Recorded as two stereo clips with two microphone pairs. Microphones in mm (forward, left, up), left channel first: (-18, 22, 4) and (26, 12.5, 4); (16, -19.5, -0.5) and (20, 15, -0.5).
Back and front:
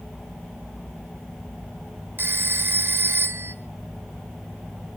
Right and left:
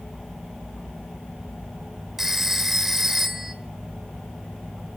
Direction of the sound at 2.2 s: 5° left.